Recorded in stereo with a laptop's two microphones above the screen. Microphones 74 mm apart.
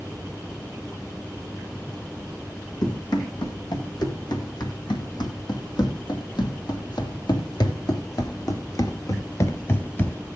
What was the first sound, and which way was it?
Running footsteps, 70° left (ahead or behind).